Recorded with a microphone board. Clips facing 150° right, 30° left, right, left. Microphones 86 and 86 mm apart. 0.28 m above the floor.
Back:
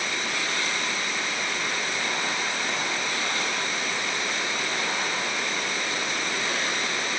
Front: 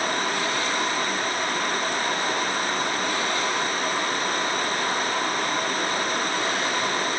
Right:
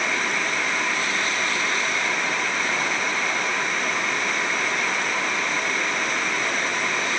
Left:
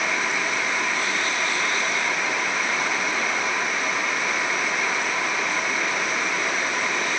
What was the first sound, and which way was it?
Only background noise.